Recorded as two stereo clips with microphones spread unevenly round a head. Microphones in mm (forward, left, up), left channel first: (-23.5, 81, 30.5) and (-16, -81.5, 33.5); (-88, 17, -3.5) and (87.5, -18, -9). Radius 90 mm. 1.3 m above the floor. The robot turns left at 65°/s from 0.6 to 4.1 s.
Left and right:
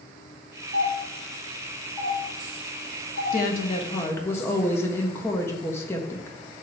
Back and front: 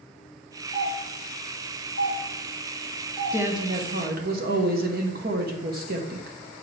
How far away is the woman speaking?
About 1.2 m.